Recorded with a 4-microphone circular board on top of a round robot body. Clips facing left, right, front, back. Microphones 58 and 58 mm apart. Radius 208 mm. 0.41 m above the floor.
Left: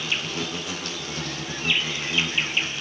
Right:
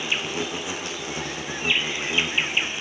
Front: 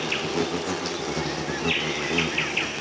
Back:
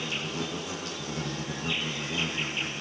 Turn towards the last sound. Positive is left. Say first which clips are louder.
# right 2 dB, front 7 dB
turn(degrees=-15)